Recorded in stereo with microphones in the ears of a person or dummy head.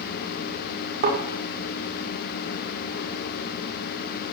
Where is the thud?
45° right (ahead or behind), 8 m.